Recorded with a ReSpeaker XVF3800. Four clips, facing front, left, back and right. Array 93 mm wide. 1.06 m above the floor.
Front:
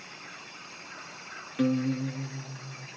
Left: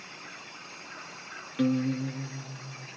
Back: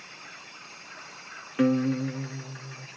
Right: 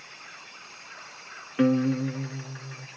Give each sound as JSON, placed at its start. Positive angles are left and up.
{"t": 1.6, "sound": "a guitar", "azimuth_deg": -130, "distance_m": 0.5}